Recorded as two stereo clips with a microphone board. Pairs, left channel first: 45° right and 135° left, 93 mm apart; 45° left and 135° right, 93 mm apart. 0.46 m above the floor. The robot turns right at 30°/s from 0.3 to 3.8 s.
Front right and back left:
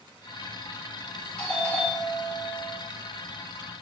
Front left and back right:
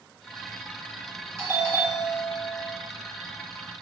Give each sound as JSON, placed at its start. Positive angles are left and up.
{"t": 1.4, "sound": "a doorbell", "azimuth_deg": -120, "distance_m": 1.4}